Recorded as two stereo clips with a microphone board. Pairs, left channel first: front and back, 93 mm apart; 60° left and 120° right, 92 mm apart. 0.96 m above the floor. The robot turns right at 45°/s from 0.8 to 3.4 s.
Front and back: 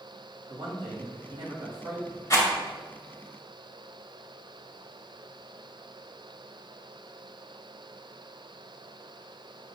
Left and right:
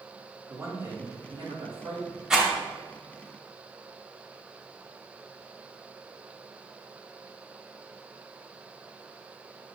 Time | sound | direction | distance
0.5 | a man speaking | 175° left | 1.7 m
2.3 | a rattle | 40° right | 0.9 m